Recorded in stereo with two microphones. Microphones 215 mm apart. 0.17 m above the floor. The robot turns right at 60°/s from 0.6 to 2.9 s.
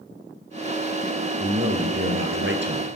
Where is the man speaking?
140° right, 2.5 m; by 2.9 s 50° right, 2.5 m.